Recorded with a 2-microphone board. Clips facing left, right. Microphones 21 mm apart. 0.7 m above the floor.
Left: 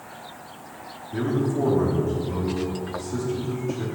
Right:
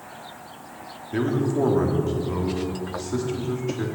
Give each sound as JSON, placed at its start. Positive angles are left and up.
{"t": 1.1, "sound": "a man speaking", "side_deg": -45, "distance_m": 1.5}